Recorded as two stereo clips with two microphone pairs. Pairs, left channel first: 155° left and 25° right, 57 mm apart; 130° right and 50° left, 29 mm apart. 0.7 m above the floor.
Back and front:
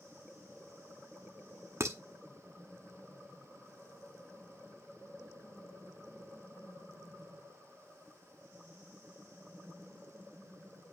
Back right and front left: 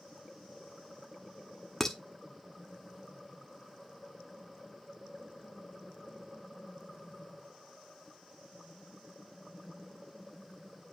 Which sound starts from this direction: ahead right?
Dishes clattering, at 1.8 s.